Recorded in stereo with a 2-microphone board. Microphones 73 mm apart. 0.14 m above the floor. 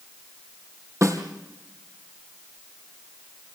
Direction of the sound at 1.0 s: 45° right (ahead or behind).